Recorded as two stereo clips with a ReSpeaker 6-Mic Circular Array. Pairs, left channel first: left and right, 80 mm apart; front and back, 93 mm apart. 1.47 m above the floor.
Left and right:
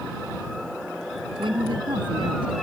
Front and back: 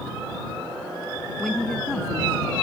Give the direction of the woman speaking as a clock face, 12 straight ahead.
3 o'clock.